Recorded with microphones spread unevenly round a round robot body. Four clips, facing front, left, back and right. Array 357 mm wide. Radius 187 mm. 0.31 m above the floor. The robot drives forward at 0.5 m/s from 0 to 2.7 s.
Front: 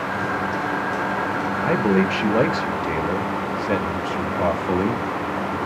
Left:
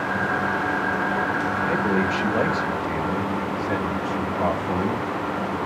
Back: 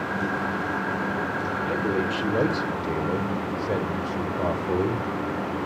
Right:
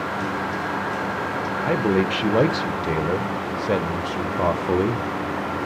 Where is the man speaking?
50° right, 0.9 m; by 5.0 s 140° right, 1.0 m.